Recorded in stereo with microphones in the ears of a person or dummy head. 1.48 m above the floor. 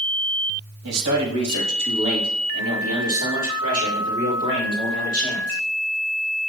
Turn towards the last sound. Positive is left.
turn(degrees=-40)  # may be behind; listen again after turning